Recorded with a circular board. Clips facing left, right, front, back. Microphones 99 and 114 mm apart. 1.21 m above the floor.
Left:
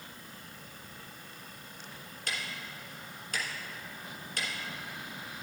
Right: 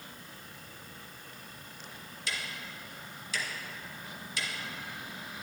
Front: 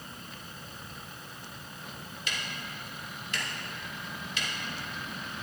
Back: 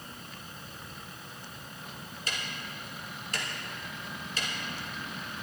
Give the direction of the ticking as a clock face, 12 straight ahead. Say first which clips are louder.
Even, even; 8 o'clock.